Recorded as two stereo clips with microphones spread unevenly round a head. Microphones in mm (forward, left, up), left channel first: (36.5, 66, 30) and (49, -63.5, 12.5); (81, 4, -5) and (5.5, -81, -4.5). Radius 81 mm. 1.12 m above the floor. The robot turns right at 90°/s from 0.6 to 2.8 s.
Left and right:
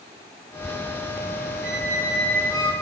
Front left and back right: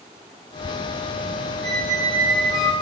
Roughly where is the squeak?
Ahead right.